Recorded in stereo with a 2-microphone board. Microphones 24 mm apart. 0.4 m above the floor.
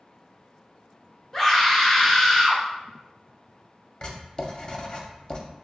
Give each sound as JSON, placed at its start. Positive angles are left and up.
{"t": 1.3, "sound": "a scream", "side_deg": 20, "distance_m": 1.3}
{"t": 4.0, "sound": "writing", "side_deg": 40, "distance_m": 0.6}